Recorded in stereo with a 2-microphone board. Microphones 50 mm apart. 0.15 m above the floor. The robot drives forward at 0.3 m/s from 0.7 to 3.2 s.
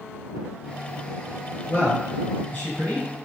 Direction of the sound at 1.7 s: 35° left (ahead or behind).